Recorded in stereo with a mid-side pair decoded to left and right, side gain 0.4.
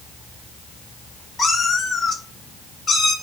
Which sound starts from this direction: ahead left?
A cat meowing, at 1.4 s.